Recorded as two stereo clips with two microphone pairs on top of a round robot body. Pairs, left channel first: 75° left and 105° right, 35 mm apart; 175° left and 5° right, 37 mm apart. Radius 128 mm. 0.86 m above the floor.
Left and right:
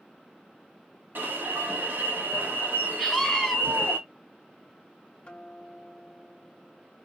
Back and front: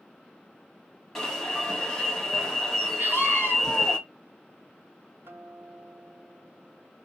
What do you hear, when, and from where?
1.1 s an alarm: 105° right, 1.4 m
3.0 s a scream: 15° right, 1.2 m
5.2 s a guitar: 15° left, 0.9 m